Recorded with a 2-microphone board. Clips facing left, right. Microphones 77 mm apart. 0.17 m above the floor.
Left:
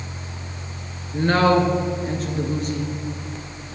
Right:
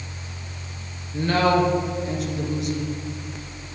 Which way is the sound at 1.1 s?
40° left (ahead or behind).